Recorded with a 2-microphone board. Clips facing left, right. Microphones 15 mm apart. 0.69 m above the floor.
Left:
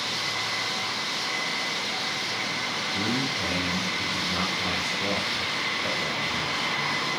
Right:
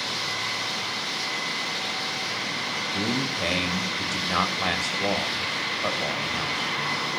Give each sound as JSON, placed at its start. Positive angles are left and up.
{"t": 2.9, "sound": "a man speaking", "side_deg": -65, "distance_m": 5.0}